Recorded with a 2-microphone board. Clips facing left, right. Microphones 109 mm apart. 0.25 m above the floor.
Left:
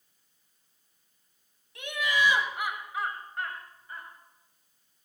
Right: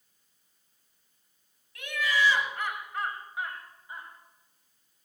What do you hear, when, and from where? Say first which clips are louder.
1.8 s laughter: even; 25° left (ahead or behind), 2 m; by 4.1 s 20° right (ahead or behind), 1.9 m